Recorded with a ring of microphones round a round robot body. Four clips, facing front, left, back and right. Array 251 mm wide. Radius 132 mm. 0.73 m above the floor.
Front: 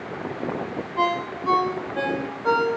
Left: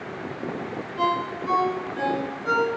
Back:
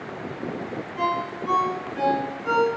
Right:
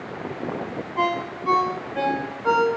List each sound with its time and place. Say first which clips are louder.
1.0 s a ringtone: even, front 2 dB; 45° right, 2 m